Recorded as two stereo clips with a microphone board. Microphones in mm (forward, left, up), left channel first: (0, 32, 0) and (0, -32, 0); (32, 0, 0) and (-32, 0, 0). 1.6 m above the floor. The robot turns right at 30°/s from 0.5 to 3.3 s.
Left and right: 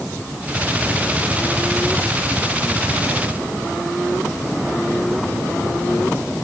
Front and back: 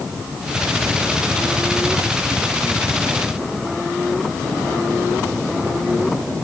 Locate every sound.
Only background noise.